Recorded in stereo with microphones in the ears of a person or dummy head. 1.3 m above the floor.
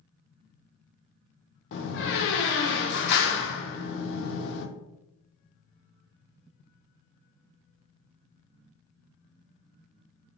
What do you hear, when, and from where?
1.7 s a door slam: 60° left (ahead or behind), 0.5 m